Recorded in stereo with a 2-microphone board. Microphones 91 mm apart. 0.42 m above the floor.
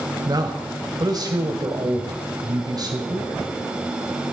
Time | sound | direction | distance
0.2 | a man speaking | 45° right (ahead or behind) | 1.9 m